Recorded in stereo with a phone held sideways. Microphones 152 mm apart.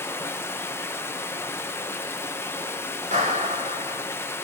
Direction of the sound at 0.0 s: 15° left (ahead or behind).